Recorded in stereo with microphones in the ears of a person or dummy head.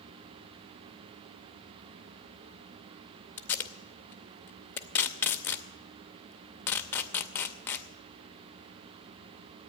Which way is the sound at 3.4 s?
10° left (ahead or behind).